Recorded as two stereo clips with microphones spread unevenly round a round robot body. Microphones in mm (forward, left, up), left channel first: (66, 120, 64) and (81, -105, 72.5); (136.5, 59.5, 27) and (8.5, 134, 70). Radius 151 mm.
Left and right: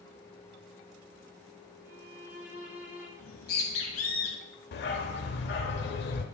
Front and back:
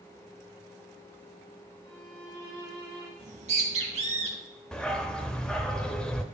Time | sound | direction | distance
1.8 | a violin | 170° right | 1.8 m
3.2 | a bird | 135° left | 1.0 m
4.7 | a dog barking | 65° left | 0.7 m